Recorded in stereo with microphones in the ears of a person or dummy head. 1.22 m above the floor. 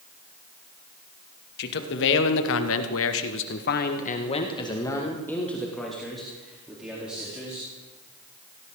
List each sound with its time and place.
1.6 s a man speaking: 55° left (ahead or behind), 2 m; by 7.7 s 5° right (ahead or behind), 4 m